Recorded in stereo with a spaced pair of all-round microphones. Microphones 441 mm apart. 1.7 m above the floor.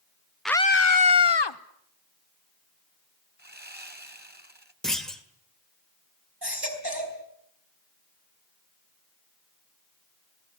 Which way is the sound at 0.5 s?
Centre (ahead or behind).